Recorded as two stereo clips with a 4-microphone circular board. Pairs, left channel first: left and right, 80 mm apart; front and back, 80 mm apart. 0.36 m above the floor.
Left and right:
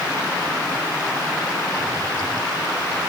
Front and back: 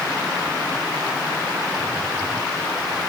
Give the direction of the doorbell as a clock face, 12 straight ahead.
I don't hear a doorbell.